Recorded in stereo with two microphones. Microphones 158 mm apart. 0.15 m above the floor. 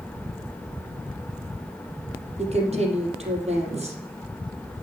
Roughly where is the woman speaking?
Right.